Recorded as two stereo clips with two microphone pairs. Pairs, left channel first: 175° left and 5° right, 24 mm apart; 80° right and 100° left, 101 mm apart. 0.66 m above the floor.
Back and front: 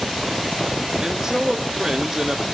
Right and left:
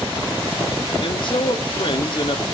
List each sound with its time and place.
1.0 s a man speaking: 60° right, 1.6 m